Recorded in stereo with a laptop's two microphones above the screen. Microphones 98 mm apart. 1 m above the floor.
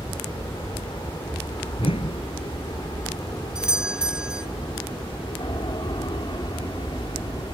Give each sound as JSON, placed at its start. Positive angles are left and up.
{"t": 0.0, "sound": "an aircraft", "side_deg": 45}
{"t": 1.8, "sound": "a whoosh", "side_deg": 65}
{"t": 3.5, "sound": "a doorbell", "side_deg": -10}